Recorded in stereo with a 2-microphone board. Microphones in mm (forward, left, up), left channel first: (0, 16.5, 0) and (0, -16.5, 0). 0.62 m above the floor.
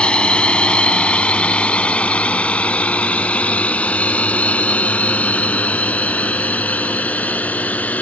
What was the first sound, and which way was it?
A drone, 35° left (ahead or behind).